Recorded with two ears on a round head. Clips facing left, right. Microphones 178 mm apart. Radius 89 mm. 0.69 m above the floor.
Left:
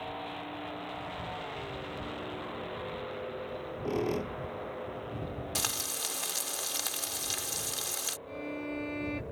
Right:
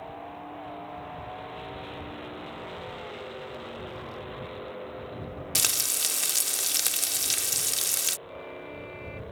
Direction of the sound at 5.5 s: 30° right (ahead or behind).